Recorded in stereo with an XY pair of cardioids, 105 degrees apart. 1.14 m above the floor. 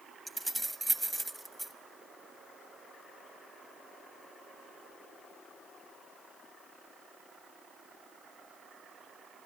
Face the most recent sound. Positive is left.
turn(degrees=-10)